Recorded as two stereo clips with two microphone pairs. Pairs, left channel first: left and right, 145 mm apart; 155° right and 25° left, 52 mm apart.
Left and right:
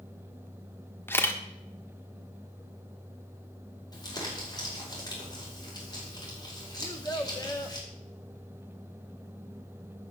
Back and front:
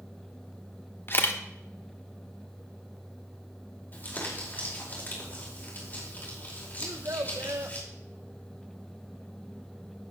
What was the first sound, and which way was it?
A camera shutter, 160° left.